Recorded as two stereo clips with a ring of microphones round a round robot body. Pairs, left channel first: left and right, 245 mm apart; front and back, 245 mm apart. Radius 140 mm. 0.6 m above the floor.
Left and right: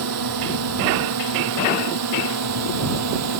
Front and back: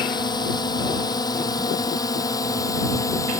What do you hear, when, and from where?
0.0 s a drone: 75° right